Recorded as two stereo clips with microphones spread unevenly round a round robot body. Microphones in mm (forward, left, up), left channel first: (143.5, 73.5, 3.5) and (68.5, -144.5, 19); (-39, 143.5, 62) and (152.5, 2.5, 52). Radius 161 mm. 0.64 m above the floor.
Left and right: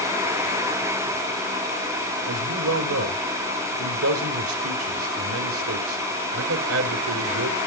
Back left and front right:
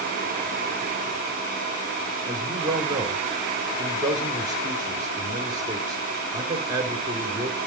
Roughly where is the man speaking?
Right.